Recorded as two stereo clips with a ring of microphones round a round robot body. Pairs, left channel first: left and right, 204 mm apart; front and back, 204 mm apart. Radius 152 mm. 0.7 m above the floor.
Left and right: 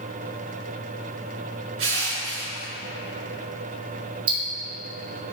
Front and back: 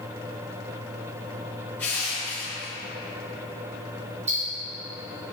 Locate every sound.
1.8 s crushing: 85° right, 2 m
4.3 s ticking: 110° right, 2 m